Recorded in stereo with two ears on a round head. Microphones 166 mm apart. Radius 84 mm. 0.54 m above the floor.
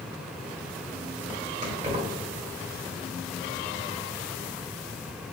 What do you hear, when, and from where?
1.6 s keys jangling: 35° right (ahead or behind), 1.5 m